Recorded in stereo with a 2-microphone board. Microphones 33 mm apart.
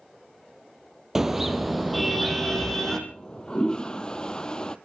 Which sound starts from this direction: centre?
A car horn, at 1.1 s.